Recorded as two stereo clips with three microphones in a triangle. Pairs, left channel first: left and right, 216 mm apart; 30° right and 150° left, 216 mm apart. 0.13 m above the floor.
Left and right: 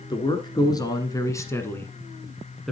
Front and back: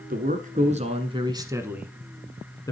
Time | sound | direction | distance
0.1 | a man speaking | 150° left | 1.5 m